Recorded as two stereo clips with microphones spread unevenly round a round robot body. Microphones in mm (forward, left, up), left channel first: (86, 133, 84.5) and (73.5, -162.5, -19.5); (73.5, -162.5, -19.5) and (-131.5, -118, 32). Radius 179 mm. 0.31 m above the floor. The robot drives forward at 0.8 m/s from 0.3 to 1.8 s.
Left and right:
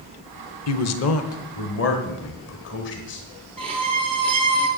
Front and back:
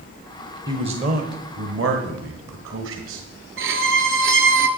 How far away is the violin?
About 1.1 m.